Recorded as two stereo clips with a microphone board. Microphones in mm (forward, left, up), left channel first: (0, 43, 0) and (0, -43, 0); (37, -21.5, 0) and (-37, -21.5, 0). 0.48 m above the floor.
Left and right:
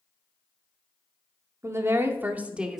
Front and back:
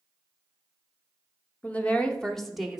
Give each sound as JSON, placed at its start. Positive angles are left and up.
{"t": 1.6, "sound": "a woman speaking", "azimuth_deg": -60, "distance_m": 0.9}